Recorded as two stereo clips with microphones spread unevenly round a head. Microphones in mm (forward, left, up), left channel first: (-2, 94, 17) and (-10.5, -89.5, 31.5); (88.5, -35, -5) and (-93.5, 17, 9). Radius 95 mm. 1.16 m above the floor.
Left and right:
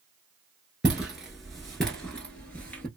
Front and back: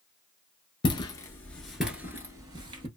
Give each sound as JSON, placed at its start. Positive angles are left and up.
{"t": 0.8, "sound": "footsteps", "azimuth_deg": -30, "distance_m": 1.1}